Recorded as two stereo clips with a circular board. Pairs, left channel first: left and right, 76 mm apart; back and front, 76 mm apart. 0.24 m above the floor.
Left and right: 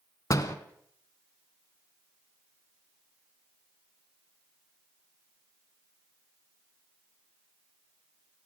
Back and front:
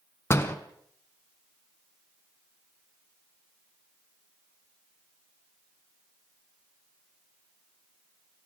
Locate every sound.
0.3 s a door slam: 125° left, 1.4 m